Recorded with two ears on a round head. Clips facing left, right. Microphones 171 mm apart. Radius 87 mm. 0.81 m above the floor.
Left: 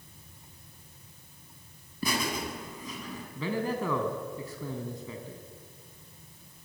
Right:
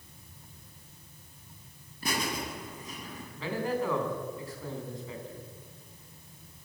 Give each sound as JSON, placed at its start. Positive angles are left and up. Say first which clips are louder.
{"t": 2.0, "sound": "laughter", "louder": "left 2 dB", "side_deg": 70, "distance_m": 7.5}
{"t": 3.4, "sound": "a man speaking", "louder": "even", "side_deg": 80, "distance_m": 5.5}